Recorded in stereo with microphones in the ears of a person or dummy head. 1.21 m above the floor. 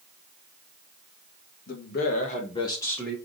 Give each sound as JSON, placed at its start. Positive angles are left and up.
{"t": 1.7, "sound": "a man speaking", "side_deg": 55, "distance_m": 1.5}